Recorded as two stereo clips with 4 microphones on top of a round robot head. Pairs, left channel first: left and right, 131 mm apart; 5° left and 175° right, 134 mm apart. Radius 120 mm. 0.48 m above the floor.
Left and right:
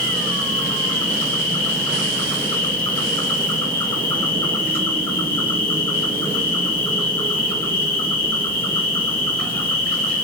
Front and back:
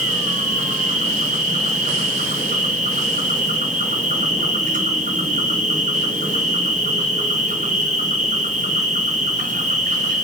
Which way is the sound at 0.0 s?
155° left.